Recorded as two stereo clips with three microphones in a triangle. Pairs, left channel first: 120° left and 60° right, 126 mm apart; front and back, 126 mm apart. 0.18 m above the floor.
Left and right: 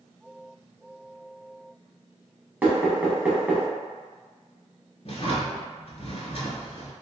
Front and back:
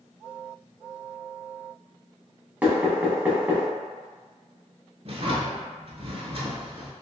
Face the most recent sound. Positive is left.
turn(degrees=150)